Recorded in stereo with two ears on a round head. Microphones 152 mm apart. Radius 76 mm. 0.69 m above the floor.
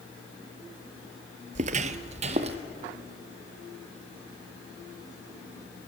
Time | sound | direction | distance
1.6 | footsteps | 40° right (ahead or behind) | 0.8 m